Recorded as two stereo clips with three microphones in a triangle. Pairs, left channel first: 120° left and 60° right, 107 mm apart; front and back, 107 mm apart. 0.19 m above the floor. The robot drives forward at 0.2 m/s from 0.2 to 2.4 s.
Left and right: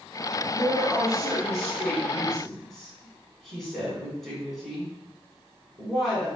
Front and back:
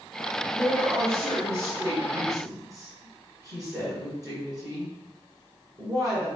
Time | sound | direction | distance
0.5 | a woman speaking | 140° right | 1.3 m